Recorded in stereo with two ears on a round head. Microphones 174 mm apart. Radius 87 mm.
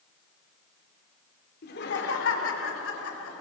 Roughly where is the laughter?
Left.